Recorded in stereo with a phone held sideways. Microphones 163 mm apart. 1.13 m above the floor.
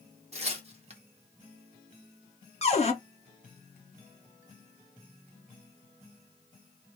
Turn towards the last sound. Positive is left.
turn(degrees=40)  # may be behind; listen again after turning